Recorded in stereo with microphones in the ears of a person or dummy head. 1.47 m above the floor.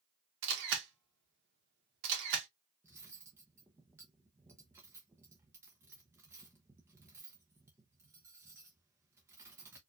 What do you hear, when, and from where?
0.4 s a camera shutter: 70° right (ahead or behind), 1.4 m
2.8 s cutlery clinking: 10° right (ahead or behind), 0.7 m